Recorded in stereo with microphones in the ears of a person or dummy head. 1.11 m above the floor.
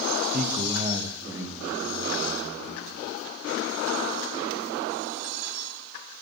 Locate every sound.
0.3 s a man speaking: 40° right (ahead or behind), 0.9 m; by 3.0 s centre (ahead or behind), 4 m